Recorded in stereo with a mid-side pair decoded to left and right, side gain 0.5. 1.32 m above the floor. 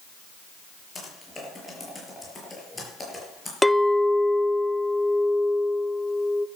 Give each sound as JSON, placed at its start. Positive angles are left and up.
{"t": 0.9, "sound": "typing on a keyboard", "azimuth_deg": 20, "distance_m": 6.5}
{"t": 3.6, "sound": "a clink", "azimuth_deg": 5, "distance_m": 0.7}